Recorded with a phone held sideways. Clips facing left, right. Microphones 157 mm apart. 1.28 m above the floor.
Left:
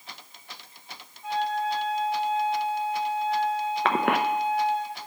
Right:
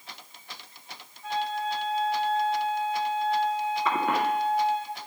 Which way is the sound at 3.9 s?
80° left.